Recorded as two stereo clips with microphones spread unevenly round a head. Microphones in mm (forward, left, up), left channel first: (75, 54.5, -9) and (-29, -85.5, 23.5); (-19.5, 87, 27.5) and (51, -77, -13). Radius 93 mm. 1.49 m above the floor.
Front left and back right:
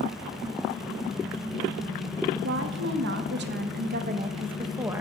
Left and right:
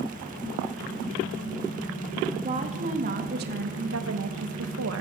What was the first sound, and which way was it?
A woman speaking, 130° right.